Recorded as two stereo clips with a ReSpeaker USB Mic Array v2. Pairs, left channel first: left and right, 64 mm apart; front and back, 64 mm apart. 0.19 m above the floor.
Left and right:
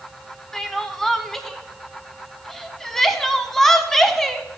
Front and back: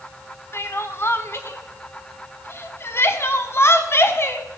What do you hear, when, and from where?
0.5 s crying: 5° left, 0.8 m